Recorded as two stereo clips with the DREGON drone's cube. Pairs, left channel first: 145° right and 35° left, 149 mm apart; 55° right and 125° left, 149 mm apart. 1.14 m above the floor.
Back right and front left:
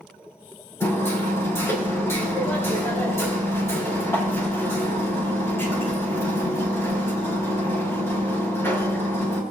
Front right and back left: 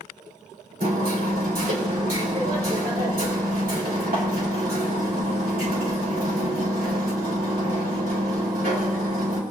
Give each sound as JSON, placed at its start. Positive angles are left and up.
{"t": 0.8, "sound": "hammering", "azimuth_deg": 140, "distance_m": 3.0}